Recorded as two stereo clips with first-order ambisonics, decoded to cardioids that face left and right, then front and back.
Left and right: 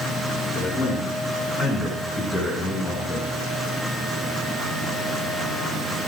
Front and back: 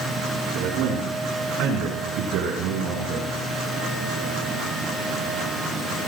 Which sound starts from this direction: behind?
A man speaking, at 0.5 s.